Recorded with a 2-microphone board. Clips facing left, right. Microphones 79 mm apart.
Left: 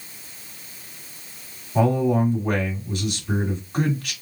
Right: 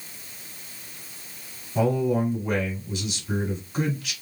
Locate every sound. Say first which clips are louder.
1.8 s a man speaking: left 3 dB; 50° left (ahead or behind), 2.0 m